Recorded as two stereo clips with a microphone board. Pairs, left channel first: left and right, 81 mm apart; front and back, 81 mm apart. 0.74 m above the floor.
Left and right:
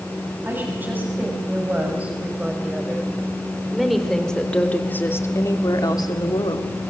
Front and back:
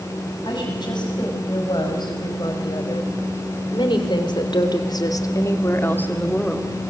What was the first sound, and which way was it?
A woman speaking, 25° right.